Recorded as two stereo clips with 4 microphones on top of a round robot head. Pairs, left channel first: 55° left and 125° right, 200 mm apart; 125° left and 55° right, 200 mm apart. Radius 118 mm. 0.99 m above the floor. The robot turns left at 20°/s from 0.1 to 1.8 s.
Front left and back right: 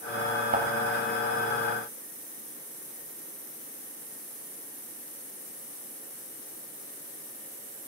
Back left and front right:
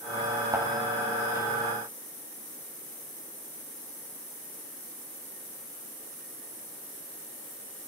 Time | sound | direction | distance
0.5 | a thud | 115° right | 0.9 m